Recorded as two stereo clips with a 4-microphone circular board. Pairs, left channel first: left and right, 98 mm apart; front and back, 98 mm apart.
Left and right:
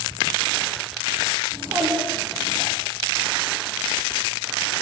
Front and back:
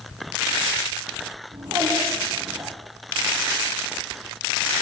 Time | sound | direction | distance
1.5 | a child speaking | 145° right | 6 m